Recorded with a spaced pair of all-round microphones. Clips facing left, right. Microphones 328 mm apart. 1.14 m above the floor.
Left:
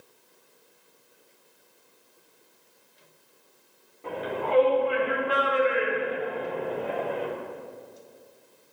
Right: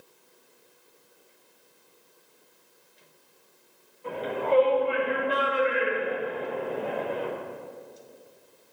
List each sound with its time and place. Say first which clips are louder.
4.0 s a shout: right 2 dB; 80° left, 4 m; by 7.2 s 60° left (ahead or behind), 5.5 m